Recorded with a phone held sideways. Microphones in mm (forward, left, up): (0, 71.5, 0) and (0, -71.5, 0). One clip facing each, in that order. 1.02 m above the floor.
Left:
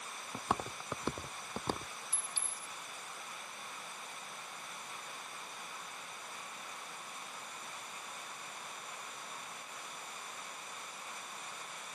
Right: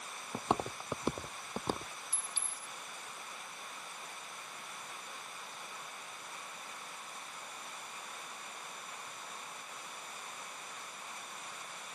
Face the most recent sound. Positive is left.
turn(degrees=-60)  # may be behind; listen again after turning